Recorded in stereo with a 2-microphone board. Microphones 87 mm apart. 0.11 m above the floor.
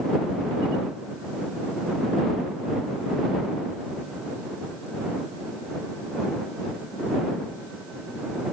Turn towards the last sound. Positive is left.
No sound to turn to.